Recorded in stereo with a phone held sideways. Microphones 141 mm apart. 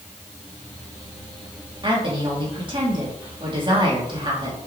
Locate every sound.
1.8 s a woman speaking: 35° right (ahead or behind), 3.5 m